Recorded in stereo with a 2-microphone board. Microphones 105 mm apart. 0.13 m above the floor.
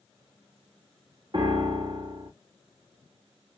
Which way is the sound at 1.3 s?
50° right (ahead or behind).